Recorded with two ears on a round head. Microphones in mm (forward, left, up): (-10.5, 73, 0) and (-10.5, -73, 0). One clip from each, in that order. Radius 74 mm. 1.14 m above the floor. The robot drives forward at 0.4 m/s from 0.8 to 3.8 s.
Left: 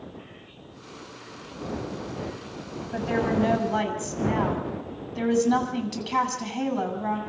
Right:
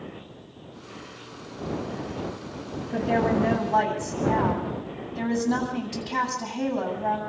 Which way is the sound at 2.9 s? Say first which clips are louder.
Right 2 dB; 40° left (ahead or behind).